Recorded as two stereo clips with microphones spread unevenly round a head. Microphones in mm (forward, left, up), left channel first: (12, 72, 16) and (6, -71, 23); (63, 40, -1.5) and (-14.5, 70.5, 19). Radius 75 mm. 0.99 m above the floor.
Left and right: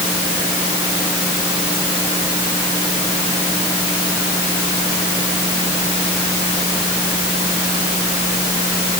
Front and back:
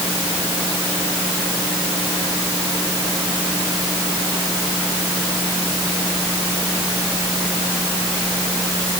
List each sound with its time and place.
Only background noise.